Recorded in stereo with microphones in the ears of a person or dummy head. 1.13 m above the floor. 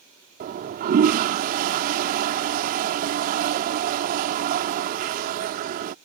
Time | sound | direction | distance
0.4 | a toilet flushing | 50° right (ahead or behind) | ?